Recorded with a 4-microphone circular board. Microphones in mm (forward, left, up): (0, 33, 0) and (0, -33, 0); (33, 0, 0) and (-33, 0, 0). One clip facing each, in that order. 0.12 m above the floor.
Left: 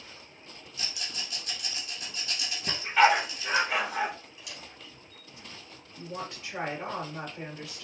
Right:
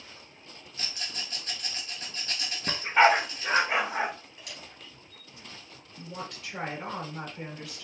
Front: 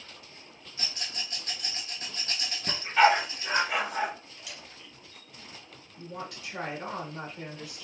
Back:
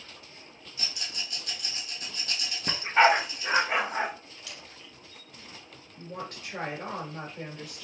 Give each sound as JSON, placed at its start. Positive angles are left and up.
{"t": 0.8, "sound": "a rattle", "azimuth_deg": -45, "distance_m": 1.2}
{"t": 2.7, "sound": "a dog barking", "azimuth_deg": -140, "distance_m": 0.6}
{"t": 4.4, "sound": "a camera shutter", "azimuth_deg": -75, "distance_m": 1.9}
{"t": 6.0, "sound": "a woman speaking", "azimuth_deg": 155, "distance_m": 1.7}